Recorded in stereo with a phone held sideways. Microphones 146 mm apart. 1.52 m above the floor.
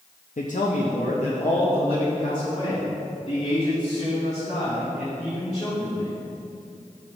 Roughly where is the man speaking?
Left.